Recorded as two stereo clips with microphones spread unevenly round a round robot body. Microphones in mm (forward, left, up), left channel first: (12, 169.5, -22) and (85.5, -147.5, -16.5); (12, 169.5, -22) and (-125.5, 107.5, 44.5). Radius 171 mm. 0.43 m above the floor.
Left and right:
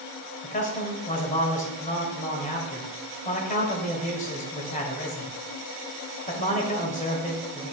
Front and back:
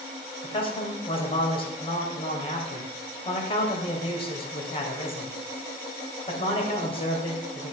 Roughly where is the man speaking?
Ahead left.